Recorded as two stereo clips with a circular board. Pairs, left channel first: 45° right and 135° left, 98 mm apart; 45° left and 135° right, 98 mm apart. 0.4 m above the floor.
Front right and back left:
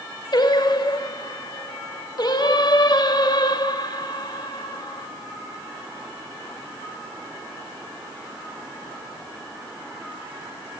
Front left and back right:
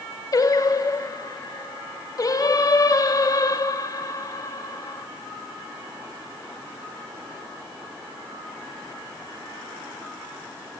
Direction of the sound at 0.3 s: 5° right.